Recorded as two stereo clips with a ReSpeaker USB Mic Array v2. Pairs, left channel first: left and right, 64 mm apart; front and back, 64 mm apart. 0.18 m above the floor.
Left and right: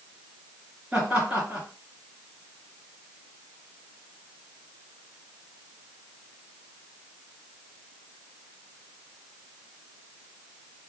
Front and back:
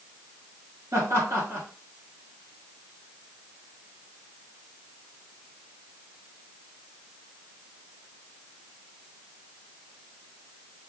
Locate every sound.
0.9 s laughter: 165° right, 2.5 m